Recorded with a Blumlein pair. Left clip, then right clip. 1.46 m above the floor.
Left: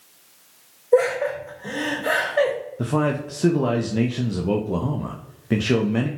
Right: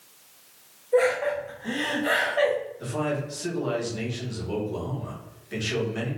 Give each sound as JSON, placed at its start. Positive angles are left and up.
{"t": 0.9, "sound": "laughter", "azimuth_deg": 40, "distance_m": 2.5}
{"t": 2.8, "sound": "a man speaking", "azimuth_deg": 45, "distance_m": 0.7}